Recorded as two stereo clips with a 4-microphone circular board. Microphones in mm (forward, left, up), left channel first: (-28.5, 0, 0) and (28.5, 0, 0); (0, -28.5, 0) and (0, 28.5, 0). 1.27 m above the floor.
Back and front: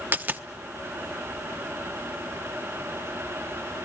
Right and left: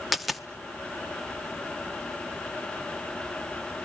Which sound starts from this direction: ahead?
A dropped coin, at 0.1 s.